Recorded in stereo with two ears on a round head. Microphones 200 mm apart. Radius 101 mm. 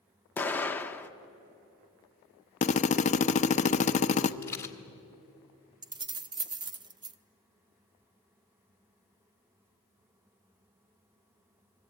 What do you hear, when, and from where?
0.4 s an explosion: 10° left (ahead or behind), 1.2 m
2.6 s a drill: 30° left (ahead or behind), 0.9 m
4.4 s a rattle: 10° left (ahead or behind), 1.6 m
5.8 s keys jangling: 20° right (ahead or behind), 0.9 m